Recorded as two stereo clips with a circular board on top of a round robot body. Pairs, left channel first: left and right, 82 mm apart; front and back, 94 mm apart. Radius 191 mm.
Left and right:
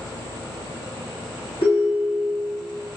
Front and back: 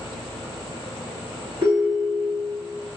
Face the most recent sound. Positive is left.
turn(degrees=125)